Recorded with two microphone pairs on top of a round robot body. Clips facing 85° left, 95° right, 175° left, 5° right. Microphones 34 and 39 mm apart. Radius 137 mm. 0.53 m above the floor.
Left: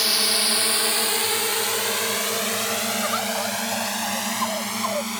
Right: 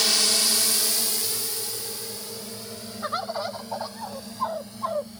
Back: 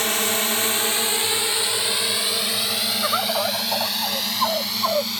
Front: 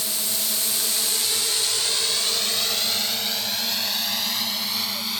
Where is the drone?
170° left; by 5.2 s 85° left.